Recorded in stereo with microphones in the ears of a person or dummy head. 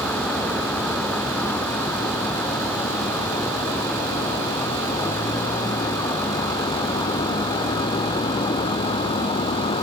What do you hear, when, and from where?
0.0 s a vehicle: 10° left (ahead or behind); by 9.8 s 30° left (ahead or behind)